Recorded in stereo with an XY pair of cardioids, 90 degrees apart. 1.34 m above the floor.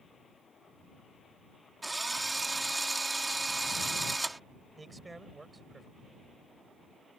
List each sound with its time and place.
1.8 s a drill: 20° right
4.8 s a man speaking: 25° right